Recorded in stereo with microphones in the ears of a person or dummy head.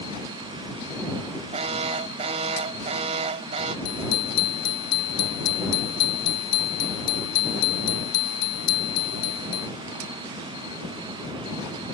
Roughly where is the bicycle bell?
Left.